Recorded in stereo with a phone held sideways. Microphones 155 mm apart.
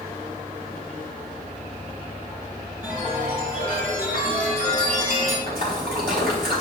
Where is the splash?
80° right, 4 m.